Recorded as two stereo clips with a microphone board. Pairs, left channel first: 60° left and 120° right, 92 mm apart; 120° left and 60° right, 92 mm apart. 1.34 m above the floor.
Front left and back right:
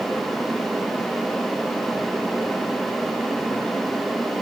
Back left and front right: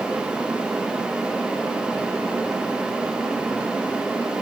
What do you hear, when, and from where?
Only background noise.